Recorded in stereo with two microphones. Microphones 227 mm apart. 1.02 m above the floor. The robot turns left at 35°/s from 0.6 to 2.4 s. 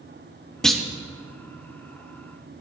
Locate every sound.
0.6 s a clunk: 5° left (ahead or behind), 0.6 m; by 0.8 s 5° right (ahead or behind), 0.6 m